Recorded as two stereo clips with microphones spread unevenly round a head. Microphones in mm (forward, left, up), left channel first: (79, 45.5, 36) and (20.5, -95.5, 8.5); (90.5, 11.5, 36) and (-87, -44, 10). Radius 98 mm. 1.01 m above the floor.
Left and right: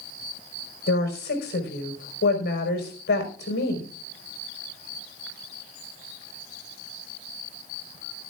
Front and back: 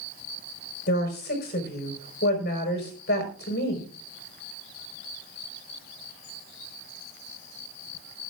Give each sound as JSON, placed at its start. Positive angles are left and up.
{"t": 0.9, "sound": "a woman speaking", "azimuth_deg": 60, "distance_m": 5.0}